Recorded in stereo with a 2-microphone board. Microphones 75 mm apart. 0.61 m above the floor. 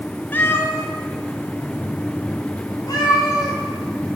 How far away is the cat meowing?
About 0.6 m.